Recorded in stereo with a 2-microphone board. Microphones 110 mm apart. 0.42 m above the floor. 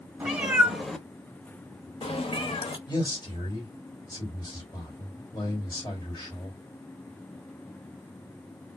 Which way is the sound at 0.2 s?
15° right (ahead or behind).